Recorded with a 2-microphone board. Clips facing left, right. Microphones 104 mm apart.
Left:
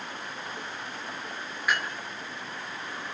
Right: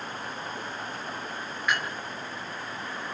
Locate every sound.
1.7 s dishes clattering: 5° left (ahead or behind), 7.5 m